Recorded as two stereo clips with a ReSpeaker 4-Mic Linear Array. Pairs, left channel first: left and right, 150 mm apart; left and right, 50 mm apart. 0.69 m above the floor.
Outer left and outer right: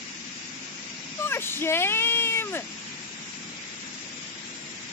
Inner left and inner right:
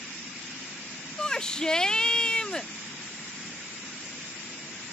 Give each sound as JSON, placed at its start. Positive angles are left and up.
{"t": 1.2, "sound": "a shout", "side_deg": 15}